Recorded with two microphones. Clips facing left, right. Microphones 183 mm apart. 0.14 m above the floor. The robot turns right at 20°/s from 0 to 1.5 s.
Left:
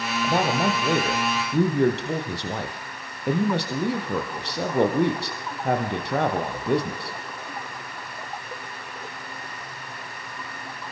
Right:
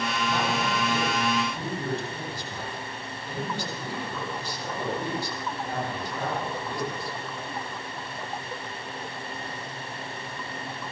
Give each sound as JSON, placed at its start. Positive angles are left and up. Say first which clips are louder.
{"t": 0.2, "sound": "a man speaking", "louder": "left 7 dB", "side_deg": 50, "distance_m": 4.5}